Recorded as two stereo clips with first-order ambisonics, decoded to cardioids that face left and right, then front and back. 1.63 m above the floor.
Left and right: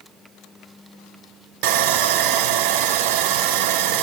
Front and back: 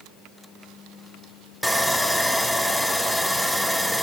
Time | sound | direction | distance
1.6 | sawing | 90° right | 0.6 m